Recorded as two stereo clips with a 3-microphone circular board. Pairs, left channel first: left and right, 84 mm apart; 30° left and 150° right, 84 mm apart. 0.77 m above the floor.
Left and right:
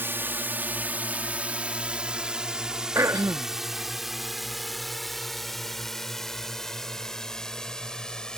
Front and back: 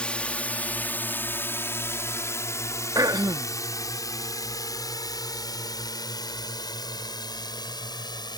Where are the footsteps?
No footsteps in this recording.